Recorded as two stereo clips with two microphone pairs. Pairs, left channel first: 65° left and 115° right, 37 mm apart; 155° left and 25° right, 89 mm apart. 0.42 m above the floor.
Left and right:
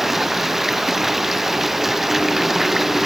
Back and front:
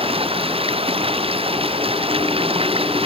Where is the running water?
30° right.